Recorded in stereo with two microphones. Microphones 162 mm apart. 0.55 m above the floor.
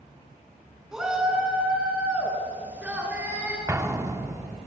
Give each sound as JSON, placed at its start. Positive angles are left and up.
{"t": 0.9, "sound": "a shout", "side_deg": -5, "distance_m": 6.5}
{"t": 3.7, "sound": "an explosion", "side_deg": -15, "distance_m": 1.4}